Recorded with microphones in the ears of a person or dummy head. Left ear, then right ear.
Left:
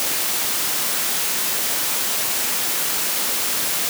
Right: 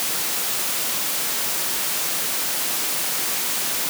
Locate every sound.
Only background noise.